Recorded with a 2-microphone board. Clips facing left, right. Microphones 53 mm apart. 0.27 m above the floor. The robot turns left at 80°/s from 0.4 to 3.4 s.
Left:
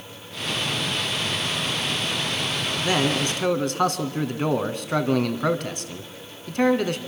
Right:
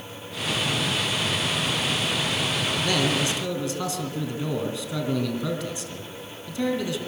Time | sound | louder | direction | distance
2.8 | a man speaking | left 3 dB | 160° left | 2.5 m